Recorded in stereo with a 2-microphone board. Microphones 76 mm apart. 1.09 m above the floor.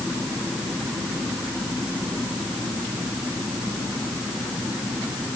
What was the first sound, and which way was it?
Only background noise.